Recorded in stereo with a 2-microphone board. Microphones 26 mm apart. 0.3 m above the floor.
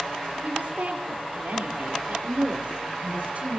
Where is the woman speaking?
80° right, 5.5 m.